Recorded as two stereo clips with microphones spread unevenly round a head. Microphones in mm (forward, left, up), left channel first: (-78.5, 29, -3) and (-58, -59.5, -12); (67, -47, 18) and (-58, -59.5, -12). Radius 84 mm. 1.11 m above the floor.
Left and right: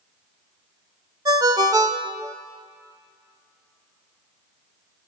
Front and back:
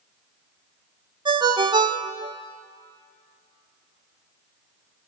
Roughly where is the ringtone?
Behind right.